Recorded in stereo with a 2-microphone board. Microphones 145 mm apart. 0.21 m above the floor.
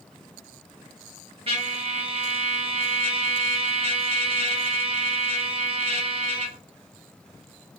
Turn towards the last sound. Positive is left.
turn(degrees=-40)  # may be behind; listen again after turning